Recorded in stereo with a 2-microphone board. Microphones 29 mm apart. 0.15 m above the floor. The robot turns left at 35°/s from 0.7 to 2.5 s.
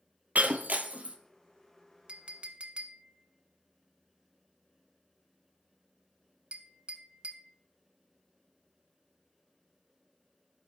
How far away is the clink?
About 0.7 m.